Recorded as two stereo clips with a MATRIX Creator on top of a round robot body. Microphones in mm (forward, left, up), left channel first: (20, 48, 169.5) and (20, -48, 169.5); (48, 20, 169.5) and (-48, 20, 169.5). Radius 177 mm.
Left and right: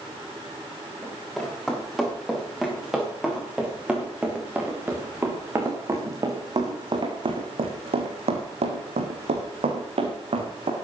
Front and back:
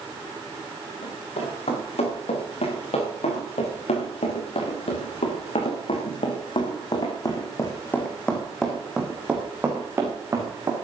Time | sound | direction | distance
1.0 | running footsteps | 5° left | 8.5 m